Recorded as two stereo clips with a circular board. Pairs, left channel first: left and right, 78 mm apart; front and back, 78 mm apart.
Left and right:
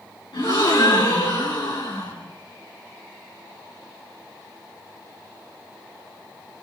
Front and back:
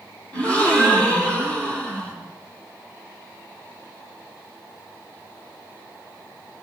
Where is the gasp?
75° left, 4.5 m.